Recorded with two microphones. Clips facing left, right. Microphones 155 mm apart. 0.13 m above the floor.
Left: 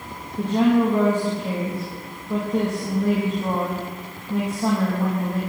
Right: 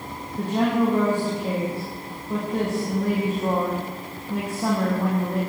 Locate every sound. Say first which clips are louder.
0.4 s a woman speaking: left 3 dB; 10° right (ahead or behind), 7 m